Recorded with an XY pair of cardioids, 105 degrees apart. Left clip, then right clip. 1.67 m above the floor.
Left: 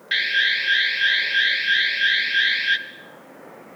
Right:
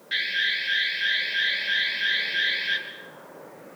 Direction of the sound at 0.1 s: 60° left.